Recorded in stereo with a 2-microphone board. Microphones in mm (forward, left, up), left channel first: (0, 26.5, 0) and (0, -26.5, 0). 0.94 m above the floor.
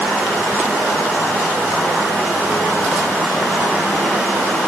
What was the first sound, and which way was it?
Only background noise.